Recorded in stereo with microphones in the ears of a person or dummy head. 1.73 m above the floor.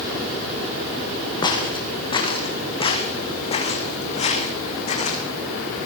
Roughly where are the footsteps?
Left.